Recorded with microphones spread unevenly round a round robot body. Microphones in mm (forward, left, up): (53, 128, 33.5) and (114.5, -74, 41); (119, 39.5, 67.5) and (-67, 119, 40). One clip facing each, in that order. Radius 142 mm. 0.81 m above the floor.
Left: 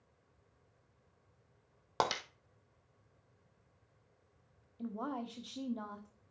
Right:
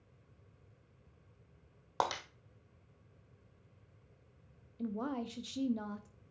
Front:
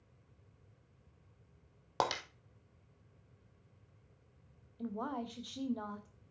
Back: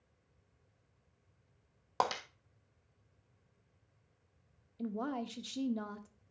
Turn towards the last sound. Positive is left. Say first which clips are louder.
# right 3 dB, back 2 dB
turn(degrees=-145)